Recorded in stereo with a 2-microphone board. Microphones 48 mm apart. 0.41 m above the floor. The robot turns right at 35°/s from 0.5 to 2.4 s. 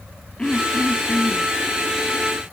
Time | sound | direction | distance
0.4 | throat clearing | 20° left | ?